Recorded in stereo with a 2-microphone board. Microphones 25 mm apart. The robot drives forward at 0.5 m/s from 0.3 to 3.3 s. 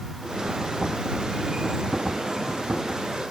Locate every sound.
Only background noise.